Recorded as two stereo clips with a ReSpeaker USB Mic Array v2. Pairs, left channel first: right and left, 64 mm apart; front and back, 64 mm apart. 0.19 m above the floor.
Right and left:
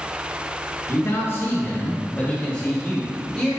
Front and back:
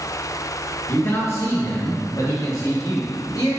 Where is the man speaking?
50° right, 3 m; by 3.5 s 5° right, 5.5 m.